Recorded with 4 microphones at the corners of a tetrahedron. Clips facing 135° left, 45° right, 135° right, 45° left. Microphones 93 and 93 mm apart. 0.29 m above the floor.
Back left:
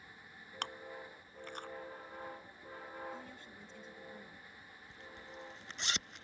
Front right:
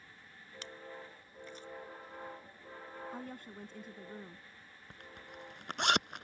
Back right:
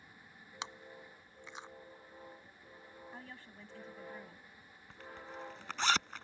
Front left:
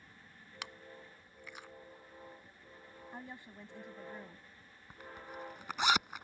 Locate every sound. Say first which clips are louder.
0.6 s chewing: back left 3 dB, back right 3 dB; 160° left
3.1 s a woman speaking: front right 5 dB, front left 6 dB; 25° right
4.9 s a zipper: even, even; 30° right